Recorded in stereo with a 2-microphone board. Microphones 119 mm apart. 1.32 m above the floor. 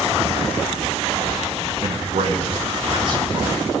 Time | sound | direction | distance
1.8 | a man speaking | 70° right (ahead or behind) | 1.3 m